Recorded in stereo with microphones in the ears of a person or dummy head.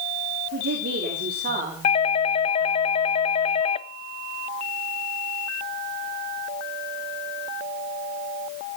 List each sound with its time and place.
0.5 s a woman speaking: 70° right (ahead or behind), 3 m; by 1.7 s 45° right (ahead or behind), 3 m
1.8 s a doorbell: 30° left (ahead or behind), 0.5 m